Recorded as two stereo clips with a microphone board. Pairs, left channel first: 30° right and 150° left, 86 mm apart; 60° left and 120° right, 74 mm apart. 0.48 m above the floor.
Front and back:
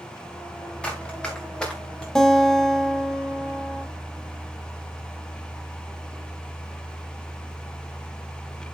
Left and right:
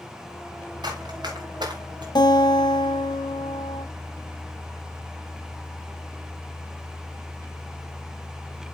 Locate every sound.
0.8 s running footsteps: 110° right, 4 m; by 2.0 s 115° right, 3.5 m
2.1 s a guitar: 55° left, 1.4 m